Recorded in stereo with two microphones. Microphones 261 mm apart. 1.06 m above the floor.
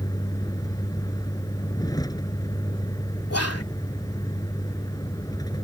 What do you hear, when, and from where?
0.0 s a vehicle: 15° left (ahead or behind)
3.3 s whispering: 65° left (ahead or behind)